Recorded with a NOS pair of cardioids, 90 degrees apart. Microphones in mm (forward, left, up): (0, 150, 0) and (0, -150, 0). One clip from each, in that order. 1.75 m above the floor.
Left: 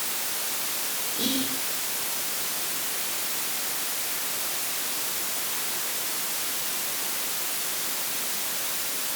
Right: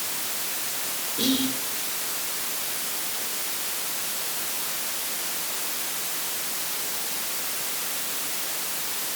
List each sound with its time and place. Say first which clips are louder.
1.2 s whispering: right 4 dB; 20° right, 7 m